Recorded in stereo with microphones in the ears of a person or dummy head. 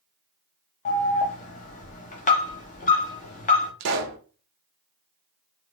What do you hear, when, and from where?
0.8 s an alarm: 35° left (ahead or behind), 1.0 m
3.8 s a pop: 60° right (ahead or behind), 0.9 m